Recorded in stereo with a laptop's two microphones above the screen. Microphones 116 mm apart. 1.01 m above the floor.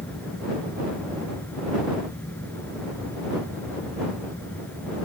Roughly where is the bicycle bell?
I don't hear a bicycle bell.